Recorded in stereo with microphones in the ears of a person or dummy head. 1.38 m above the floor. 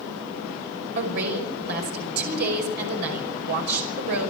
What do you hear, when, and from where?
0.9 s a woman speaking: 60° right (ahead or behind), 5.5 m